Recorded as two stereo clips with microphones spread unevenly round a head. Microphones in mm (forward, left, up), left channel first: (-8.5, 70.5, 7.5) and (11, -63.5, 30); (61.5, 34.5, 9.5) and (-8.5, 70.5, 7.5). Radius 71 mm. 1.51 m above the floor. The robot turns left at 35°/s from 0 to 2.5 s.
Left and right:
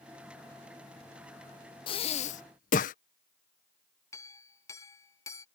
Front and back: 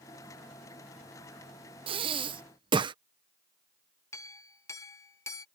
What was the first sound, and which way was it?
Breathing, 155° left.